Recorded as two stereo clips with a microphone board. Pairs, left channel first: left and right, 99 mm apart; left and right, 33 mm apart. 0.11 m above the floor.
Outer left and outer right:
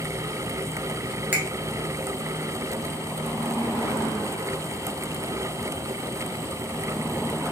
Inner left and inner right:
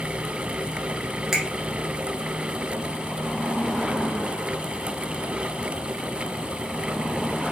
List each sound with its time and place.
1.3 s a finger snap: 15° right (ahead or behind), 0.9 m